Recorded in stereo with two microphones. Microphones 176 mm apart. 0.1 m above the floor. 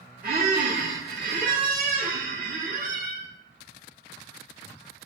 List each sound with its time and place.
0.2 s a squeak: 60° right (ahead or behind), 0.6 m